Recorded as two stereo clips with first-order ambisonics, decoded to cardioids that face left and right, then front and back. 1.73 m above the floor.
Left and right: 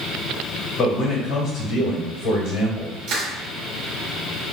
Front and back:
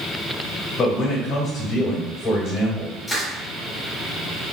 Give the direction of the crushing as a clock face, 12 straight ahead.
2 o'clock.